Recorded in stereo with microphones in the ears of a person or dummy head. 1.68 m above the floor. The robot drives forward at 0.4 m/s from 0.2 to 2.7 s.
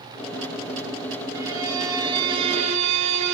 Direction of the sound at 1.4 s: 20° right (ahead or behind).